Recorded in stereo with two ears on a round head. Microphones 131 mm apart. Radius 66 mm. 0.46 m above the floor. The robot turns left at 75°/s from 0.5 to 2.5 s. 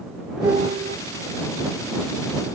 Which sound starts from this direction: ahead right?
A piano, at 0.4 s.